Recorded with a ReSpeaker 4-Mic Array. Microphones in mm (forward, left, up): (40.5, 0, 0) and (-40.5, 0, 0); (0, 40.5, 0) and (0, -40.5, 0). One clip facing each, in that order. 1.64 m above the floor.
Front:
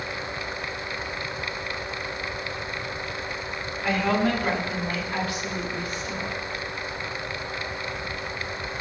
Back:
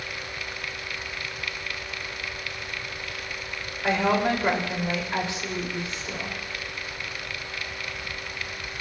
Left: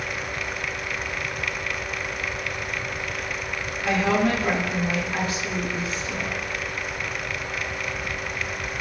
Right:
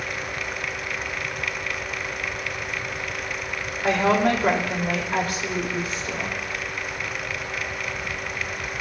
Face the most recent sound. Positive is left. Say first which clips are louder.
# back 1 dB, right 2 dB
turn(degrees=-115)